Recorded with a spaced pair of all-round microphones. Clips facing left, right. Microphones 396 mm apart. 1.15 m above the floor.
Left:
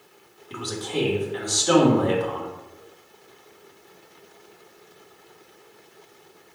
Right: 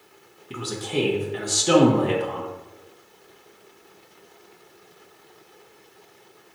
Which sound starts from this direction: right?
A man speaking, at 0.5 s.